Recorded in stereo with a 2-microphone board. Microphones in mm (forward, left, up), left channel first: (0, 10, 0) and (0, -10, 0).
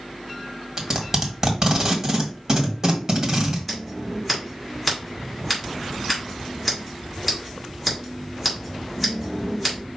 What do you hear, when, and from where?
0.8 s tape being pulled: 30° right (ahead or behind), 1.4 m
3.7 s scissors: 5° right (ahead or behind), 3 m